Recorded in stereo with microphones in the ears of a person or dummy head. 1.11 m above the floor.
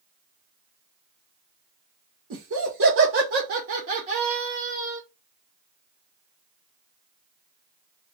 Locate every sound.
2.3 s laughter: 75° right (ahead or behind), 1.0 m; by 5.0 s 20° right (ahead or behind), 1.3 m